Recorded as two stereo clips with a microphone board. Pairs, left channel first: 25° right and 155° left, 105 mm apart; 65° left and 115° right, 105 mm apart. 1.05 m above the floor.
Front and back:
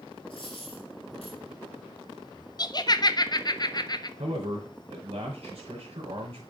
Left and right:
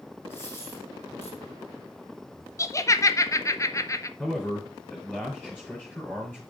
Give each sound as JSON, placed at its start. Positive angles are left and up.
{"t": 0.3, "sound": "a dropped coin", "azimuth_deg": 5, "distance_m": 3.0}
{"t": 2.6, "sound": "laughter", "azimuth_deg": 15, "distance_m": 0.5}
{"t": 4.2, "sound": "a man speaking", "azimuth_deg": 145, "distance_m": 3.0}